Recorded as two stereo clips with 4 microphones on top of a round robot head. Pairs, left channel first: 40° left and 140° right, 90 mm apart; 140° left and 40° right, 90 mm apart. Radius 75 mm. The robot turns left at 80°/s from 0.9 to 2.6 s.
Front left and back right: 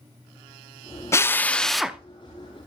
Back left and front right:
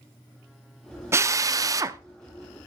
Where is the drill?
Straight ahead, 0.7 m; by 2.0 s 70° right, 0.7 m.